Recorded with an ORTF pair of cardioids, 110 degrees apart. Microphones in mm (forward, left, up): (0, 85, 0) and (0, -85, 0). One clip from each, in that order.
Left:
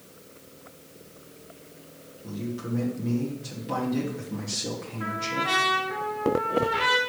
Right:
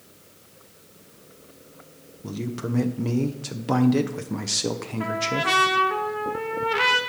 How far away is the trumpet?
About 1.7 m.